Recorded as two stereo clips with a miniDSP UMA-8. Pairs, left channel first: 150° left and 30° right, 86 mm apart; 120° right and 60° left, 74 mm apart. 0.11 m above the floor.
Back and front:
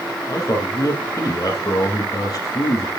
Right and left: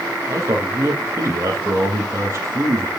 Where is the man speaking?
105° left, 4.5 m.